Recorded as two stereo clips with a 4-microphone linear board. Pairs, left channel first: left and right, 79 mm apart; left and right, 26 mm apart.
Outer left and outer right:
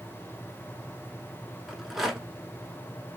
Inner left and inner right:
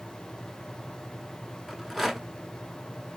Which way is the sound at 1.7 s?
5° right (ahead or behind).